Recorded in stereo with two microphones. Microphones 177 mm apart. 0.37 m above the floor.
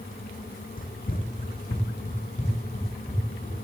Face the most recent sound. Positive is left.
turn(degrees=40)  # may be behind; listen again after turning